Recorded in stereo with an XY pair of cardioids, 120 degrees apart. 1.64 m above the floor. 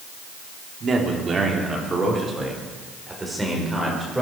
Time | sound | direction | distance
0.8 | a man speaking | 40° right | 3.5 m